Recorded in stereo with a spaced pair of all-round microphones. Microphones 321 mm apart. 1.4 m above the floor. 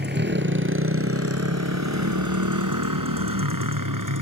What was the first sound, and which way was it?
A motorcycle, 30° right (ahead or behind).